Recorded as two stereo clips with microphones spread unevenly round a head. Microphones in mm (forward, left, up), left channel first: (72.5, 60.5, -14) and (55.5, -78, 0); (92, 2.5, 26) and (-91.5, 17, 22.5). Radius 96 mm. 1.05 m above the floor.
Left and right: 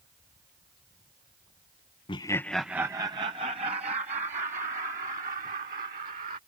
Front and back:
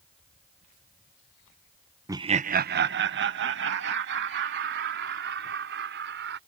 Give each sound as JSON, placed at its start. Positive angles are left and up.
{"t": 2.1, "sound": "laughter", "azimuth_deg": 110}